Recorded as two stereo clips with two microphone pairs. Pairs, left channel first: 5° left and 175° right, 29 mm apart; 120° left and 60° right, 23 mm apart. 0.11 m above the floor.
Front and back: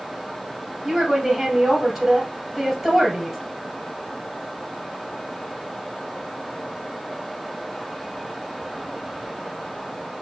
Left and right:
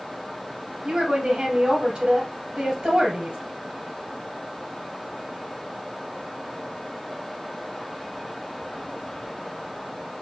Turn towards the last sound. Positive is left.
turn(degrees=-100)